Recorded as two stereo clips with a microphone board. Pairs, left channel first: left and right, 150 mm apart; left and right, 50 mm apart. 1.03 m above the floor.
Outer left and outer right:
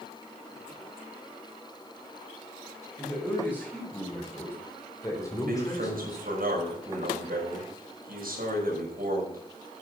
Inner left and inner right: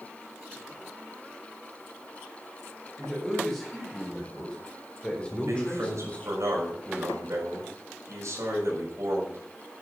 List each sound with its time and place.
3.0 s a man speaking: 10° left (ahead or behind), 5.5 m; by 6.3 s 30° left (ahead or behind), 3 m
5.3 s a man speaking: 75° right (ahead or behind), 6 m